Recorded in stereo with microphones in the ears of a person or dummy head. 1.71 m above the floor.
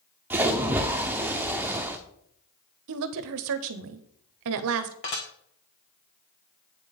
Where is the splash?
10° right (ahead or behind), 0.9 m.